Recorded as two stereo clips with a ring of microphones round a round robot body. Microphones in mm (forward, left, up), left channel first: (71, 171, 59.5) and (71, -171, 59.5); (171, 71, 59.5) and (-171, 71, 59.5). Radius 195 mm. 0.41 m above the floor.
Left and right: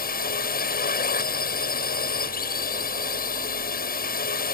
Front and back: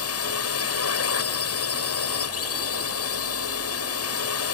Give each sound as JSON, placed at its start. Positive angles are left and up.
{"t": 0.0, "sound": "a drone", "azimuth_deg": 35}